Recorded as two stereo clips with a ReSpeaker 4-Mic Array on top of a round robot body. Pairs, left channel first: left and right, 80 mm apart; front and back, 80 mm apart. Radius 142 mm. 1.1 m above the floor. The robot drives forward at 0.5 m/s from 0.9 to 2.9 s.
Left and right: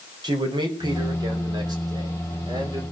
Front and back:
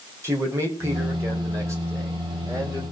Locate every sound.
0.2 s a man speaking: 120° right, 4.5 m; by 2.8 s 130° right, 5 m